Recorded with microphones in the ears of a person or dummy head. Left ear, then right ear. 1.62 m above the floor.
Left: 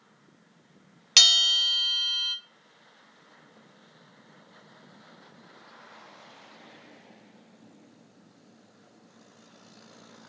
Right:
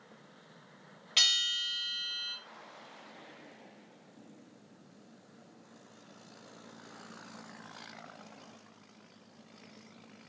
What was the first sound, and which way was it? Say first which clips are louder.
A bell: left 9 dB; 55° left (ahead or behind).